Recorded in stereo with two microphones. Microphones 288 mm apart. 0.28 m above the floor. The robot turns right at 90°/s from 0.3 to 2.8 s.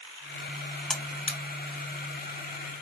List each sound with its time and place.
0.9 s a buzzer: centre (ahead or behind), 0.8 m; by 1.4 s 40° left (ahead or behind), 0.8 m